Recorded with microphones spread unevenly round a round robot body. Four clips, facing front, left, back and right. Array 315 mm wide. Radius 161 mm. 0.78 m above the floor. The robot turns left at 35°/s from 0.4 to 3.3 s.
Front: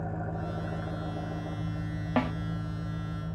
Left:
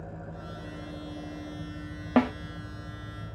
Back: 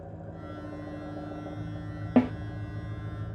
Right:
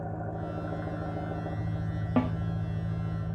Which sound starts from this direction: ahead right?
An engine running, at 0.0 s.